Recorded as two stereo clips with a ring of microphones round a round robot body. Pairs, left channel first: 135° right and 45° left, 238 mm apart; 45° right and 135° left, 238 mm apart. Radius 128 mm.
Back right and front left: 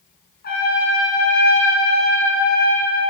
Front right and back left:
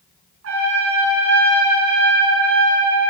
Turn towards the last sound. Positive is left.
turn(degrees=170)